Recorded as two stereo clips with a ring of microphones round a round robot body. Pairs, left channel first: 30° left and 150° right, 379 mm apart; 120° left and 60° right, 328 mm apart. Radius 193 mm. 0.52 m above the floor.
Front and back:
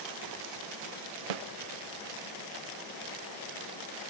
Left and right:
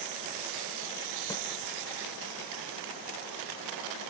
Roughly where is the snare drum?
Behind.